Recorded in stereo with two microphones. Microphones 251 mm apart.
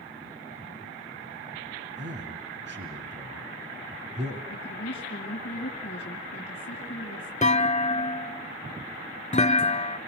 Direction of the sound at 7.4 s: 25° left (ahead or behind).